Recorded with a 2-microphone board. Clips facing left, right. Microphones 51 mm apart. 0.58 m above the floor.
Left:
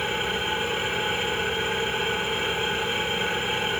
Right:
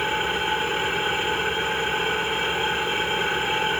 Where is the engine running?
25° right (ahead or behind), 7 m.